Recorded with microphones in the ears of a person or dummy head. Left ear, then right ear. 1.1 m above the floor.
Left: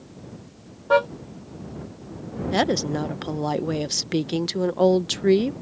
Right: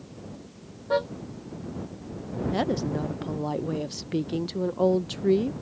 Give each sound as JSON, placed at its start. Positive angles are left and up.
{"t": 0.9, "sound": "a car horn", "side_deg": 40}
{"t": 2.5, "sound": "a woman speaking", "side_deg": 50}